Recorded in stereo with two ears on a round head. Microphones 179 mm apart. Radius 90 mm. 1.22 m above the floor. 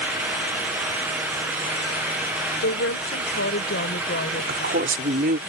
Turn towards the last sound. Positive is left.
turn(degrees=-45)  # may be behind; listen again after turning